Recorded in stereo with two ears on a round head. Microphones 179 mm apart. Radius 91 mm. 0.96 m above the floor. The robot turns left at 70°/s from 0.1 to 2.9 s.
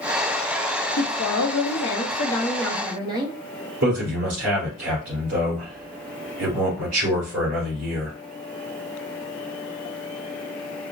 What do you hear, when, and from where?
1.0 s a woman speaking: 115° left, 0.8 m; by 3.4 s 20° right, 0.8 m
3.8 s a man speaking: 60° right (ahead or behind), 2.5 m